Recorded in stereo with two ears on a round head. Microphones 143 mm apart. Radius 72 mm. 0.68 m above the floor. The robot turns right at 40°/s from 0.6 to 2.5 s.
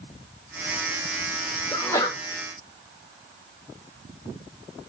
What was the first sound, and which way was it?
A sneeze, 10° left (ahead or behind).